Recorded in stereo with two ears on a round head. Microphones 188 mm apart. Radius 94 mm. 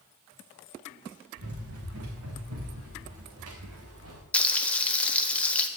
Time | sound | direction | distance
1.4 | running footsteps | 75° right (ahead or behind) | 5 m
4.3 | frying | 5° left (ahead or behind) | 1.1 m